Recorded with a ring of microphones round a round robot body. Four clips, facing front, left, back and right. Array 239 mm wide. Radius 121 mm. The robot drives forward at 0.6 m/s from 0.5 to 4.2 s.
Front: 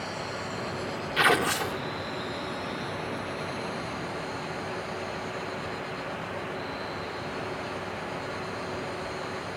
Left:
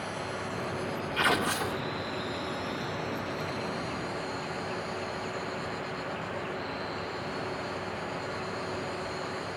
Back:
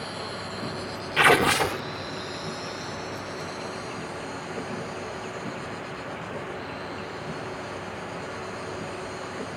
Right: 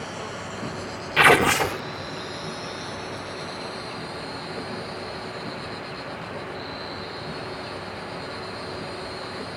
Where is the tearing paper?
105° right; by 1.8 s 140° right.